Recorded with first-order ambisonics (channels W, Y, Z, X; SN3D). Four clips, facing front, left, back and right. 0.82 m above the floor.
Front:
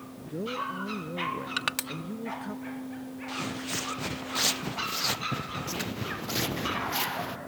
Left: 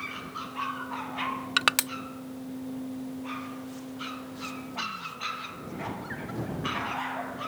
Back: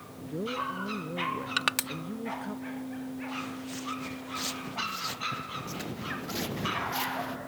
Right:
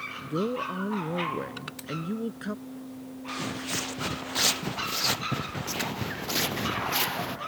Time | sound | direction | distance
0.2 | a man speaking | 90° right | ?
1.6 | crushing | 100° left | ?
3.3 | footsteps | 55° right | ?